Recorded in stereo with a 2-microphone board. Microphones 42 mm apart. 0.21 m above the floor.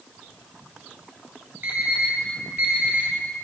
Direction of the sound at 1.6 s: 50° right (ahead or behind).